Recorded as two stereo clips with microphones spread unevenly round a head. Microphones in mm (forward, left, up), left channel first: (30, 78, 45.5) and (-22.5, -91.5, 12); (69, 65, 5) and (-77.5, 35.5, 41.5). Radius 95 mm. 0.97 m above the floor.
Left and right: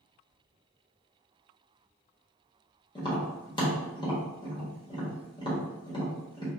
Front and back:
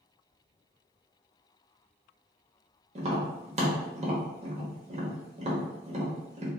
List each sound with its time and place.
3.0 s tapping: 140° left, 1.1 m